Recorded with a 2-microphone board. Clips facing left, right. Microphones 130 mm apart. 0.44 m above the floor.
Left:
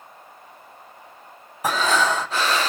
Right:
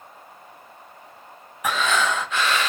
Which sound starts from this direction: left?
Breathing, at 1.6 s.